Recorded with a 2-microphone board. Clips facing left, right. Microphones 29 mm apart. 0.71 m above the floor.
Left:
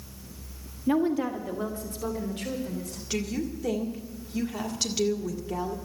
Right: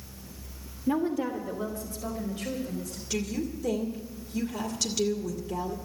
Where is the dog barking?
I don't hear a dog barking.